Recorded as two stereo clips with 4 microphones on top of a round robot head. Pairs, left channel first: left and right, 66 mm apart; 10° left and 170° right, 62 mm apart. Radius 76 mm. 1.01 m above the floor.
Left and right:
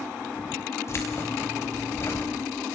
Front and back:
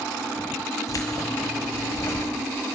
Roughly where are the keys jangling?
Ahead left.